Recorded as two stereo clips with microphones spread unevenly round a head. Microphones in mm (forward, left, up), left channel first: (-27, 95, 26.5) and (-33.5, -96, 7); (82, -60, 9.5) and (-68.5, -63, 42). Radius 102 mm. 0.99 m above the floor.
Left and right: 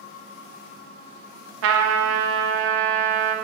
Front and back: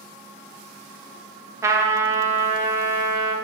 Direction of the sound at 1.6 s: 110° right.